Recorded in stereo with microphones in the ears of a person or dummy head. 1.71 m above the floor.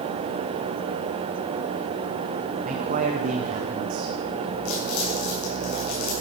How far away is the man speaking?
About 1.2 m.